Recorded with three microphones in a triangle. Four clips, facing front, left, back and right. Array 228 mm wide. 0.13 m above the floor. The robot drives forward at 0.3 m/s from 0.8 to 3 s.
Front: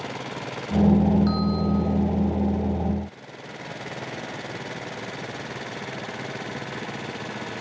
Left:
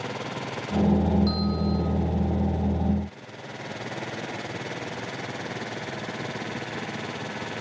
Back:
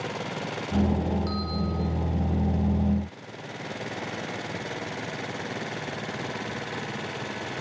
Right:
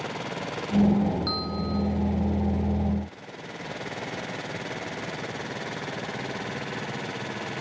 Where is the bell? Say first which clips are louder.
Left 4 dB, front 7 dB; 110° right, 6 m; by 1.8 s 115° right, 6 m.